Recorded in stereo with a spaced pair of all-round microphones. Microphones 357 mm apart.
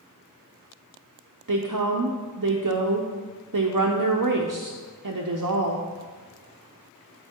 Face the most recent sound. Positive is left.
turn(degrees=-60)  # may be behind; listen again after turning